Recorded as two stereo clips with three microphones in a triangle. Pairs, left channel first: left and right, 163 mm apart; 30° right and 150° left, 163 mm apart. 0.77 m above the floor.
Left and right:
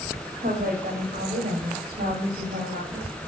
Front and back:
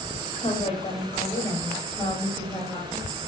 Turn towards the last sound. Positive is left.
turn(degrees=-100)